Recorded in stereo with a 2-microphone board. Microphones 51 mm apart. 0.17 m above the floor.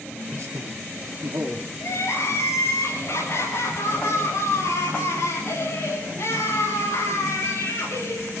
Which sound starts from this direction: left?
Crying, at 1.8 s.